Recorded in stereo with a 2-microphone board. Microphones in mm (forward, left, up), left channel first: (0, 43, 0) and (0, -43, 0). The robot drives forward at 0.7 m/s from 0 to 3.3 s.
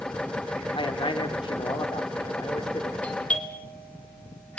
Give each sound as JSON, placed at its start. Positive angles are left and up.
{"t": 0.8, "sound": "a man speaking", "side_deg": 80, "distance_m": 1.8}
{"t": 3.0, "sound": "a doorbell", "side_deg": 15, "distance_m": 2.0}